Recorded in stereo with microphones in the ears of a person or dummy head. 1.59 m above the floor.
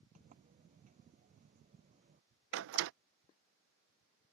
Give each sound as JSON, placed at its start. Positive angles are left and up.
{"t": 0.1, "sound": "a sliding door", "side_deg": -40}
{"t": 2.5, "sound": "a door slam", "side_deg": -65}